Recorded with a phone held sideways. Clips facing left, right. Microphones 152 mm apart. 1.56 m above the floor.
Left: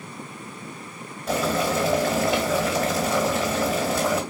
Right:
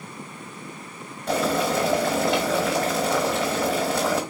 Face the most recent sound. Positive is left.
turn(degrees=0)  # may be behind; listen again after turning